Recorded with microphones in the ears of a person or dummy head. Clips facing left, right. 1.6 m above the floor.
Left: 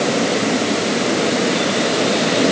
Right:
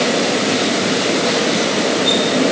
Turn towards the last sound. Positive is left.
No sound to turn to.